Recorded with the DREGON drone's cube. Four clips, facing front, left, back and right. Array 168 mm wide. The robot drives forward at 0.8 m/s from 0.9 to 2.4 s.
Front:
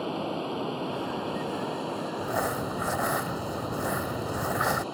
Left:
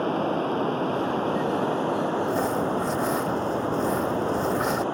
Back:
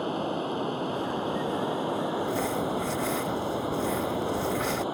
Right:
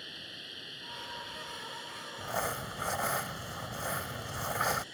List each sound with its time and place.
0.0 s running water: 95° left; by 5.0 s 105° left
2.2 s crumpling: 10° left; by 4.8 s 15° left